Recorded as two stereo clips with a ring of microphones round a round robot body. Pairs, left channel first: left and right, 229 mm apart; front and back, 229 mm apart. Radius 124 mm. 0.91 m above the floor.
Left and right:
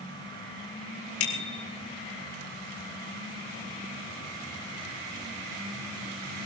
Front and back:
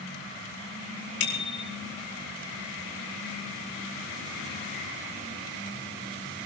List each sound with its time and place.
1.2 s a bicycle bell: 50° left, 3.5 m